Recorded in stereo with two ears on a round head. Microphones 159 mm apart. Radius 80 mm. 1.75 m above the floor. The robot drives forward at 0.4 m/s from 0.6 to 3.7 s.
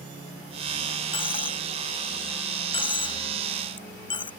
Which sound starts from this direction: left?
A dropped coin, at 1.1 s.